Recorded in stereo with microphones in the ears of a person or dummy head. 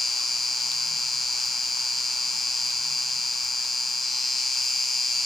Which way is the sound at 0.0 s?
Centre (ahead or behind).